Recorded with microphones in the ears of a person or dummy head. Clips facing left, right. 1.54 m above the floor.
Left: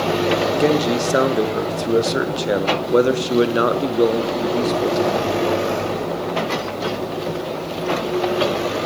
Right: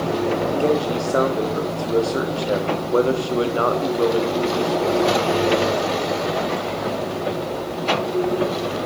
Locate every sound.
0.6 s a man speaking: 20° left (ahead or behind), 0.6 m